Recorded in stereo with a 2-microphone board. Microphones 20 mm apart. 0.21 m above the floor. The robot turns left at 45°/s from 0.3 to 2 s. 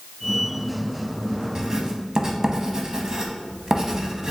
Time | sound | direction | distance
1.6 | writing | 35° right (ahead or behind) | 0.7 m